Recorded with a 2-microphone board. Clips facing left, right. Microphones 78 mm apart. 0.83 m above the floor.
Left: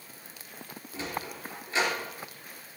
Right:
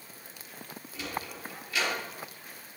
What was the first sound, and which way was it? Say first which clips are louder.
A sliding door: left 1 dB; 35° left (ahead or behind).